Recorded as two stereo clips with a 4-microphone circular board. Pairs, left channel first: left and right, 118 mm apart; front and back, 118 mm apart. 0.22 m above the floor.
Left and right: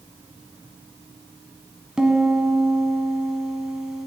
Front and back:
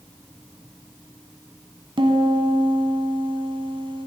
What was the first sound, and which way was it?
A piano, 170° right.